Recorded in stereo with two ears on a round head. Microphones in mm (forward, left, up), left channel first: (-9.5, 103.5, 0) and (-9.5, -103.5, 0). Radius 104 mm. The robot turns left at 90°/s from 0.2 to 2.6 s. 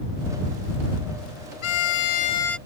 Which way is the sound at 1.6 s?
90° left.